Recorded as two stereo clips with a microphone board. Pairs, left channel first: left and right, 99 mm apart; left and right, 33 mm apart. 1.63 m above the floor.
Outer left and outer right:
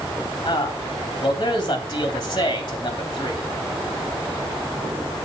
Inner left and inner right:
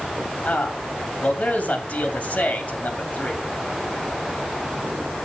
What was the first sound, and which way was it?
A man speaking, 45° left (ahead or behind).